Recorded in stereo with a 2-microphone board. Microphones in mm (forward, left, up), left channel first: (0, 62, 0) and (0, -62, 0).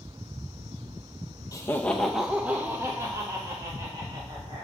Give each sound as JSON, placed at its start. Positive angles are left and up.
{"t": 1.5, "sound": "laughter", "side_deg": 30, "distance_m": 0.5}